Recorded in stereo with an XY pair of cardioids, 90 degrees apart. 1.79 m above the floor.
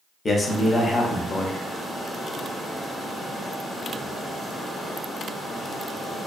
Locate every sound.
0.2 s a man speaking: 35° left, 0.7 m